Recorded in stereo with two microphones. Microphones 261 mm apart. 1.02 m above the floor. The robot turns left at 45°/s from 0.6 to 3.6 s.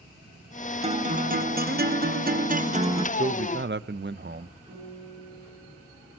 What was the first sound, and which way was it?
A guitar, 45° right.